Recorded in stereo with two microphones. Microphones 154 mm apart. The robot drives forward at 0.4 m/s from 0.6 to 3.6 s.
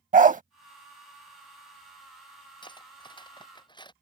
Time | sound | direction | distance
0.1 | a dog barking | 60° right (ahead or behind) | ?
2.6 | cutlery clinking | 30° left (ahead or behind) | ?